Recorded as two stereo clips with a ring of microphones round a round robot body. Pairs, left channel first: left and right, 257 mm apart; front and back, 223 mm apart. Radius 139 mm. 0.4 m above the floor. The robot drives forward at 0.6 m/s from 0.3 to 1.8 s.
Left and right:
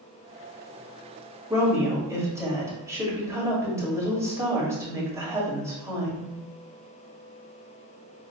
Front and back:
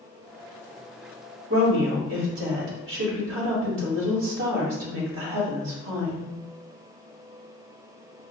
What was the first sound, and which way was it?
A woman speaking, 165° right.